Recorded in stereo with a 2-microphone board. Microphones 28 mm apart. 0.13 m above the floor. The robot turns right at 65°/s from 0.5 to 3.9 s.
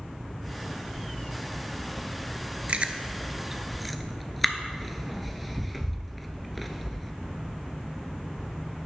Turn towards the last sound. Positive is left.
turn(degrees=0)  # may be behind; listen again after turning